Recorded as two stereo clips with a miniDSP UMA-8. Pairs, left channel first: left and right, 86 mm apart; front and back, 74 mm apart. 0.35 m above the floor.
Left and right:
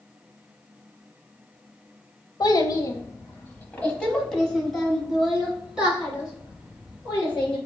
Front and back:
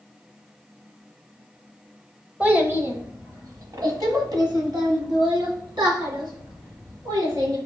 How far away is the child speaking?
About 0.8 m.